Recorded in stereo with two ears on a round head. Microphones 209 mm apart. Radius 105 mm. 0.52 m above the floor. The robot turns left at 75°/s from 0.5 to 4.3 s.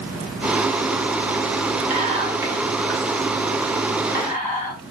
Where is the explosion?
No explosion in this recording.